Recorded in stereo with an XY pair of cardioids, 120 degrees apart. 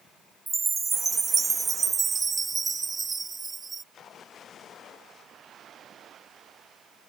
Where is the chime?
25° right.